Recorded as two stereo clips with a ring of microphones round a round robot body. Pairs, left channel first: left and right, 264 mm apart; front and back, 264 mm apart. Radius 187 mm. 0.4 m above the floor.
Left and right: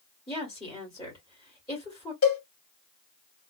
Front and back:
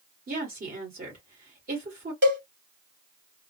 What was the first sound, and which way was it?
A woman speaking, 160° left.